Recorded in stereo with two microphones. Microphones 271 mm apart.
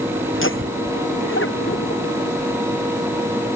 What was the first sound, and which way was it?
Laughter, 50° left (ahead or behind).